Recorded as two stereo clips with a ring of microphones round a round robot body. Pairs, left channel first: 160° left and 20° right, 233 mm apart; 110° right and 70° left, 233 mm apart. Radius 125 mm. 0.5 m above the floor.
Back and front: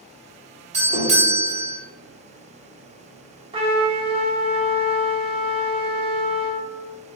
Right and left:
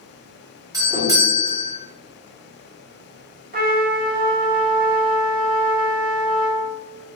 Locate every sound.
0.7 s a doorbell: 5° left, 1.5 m
3.5 s a trumpet: 35° left, 1.0 m